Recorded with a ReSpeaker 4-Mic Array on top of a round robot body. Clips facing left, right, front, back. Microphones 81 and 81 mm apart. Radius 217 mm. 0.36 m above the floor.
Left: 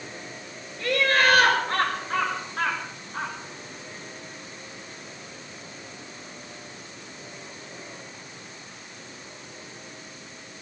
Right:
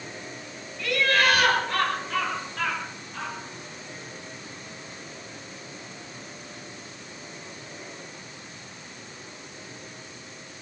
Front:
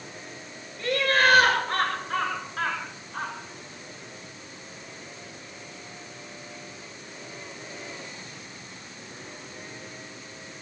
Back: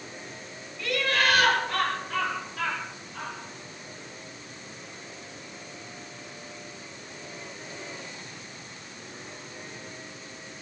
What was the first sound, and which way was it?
Laughter, 45° left.